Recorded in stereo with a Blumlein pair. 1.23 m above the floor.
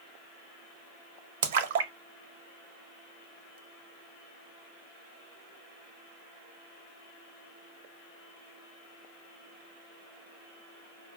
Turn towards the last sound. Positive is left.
turn(degrees=-55)